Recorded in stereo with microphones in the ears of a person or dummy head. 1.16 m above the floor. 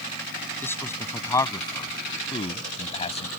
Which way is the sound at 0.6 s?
15° left (ahead or behind).